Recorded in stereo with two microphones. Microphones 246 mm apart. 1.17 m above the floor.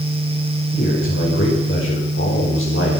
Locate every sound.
0.7 s a man speaking: 55° left (ahead or behind), 6 m; by 3.0 s 60° left (ahead or behind), 3.5 m